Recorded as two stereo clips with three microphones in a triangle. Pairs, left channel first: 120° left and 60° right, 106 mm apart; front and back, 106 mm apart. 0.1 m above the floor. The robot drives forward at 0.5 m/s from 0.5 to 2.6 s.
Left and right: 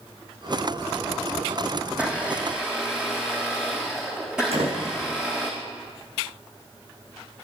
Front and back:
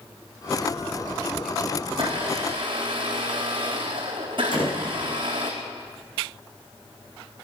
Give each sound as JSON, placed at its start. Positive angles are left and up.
{"t": 1.9, "sound": "a blender", "azimuth_deg": -140, "distance_m": 3.0}
{"t": 4.5, "sound": "a door slam", "azimuth_deg": -40, "distance_m": 5.0}